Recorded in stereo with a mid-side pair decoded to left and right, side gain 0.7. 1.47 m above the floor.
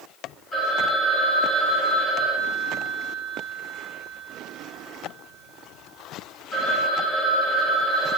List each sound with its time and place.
0.5 s a phone ringing: 5° left, 4.5 m